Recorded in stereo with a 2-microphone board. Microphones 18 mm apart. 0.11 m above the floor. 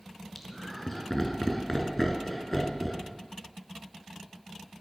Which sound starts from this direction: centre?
Laughter, at 0.3 s.